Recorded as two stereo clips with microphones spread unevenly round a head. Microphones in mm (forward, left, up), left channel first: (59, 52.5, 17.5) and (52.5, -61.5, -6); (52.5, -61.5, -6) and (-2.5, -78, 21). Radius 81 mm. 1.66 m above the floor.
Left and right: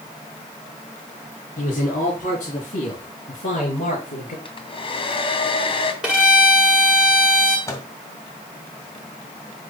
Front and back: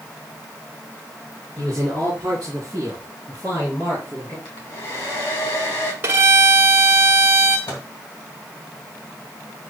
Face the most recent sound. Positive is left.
turn(degrees=25)